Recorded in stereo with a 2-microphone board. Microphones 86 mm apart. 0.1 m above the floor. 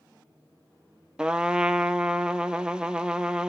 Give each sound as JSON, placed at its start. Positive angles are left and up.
{"t": 1.2, "sound": "a trumpet", "side_deg": -10, "distance_m": 0.6}